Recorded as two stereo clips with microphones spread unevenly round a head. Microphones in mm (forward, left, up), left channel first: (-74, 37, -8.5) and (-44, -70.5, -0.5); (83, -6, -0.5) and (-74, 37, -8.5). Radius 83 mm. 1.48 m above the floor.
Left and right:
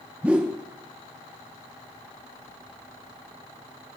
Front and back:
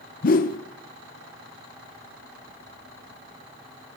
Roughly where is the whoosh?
Ahead.